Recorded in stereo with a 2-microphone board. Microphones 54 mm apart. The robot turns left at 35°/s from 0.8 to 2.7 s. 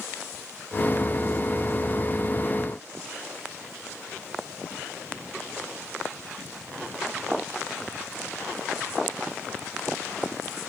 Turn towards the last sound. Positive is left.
No sound to turn to.